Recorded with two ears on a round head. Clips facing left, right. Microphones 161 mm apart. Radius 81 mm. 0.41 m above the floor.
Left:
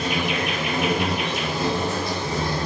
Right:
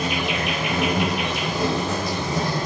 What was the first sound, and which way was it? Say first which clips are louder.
An insect: even; 60° right (ahead or behind).